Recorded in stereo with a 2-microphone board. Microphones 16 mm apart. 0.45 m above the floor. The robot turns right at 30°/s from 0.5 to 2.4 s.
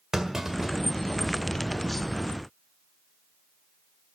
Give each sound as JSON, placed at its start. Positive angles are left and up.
{"t": 0.1, "sound": "a clunk", "side_deg": -40, "distance_m": 1.7}